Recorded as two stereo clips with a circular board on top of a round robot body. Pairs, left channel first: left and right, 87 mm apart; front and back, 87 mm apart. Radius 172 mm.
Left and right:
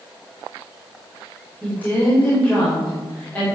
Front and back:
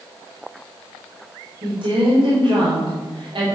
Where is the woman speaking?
160° left, 4.5 m.